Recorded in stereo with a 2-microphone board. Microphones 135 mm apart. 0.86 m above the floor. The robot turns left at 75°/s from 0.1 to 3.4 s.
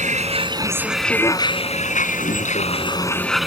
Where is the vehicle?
115° right; by 3.5 s straight ahead.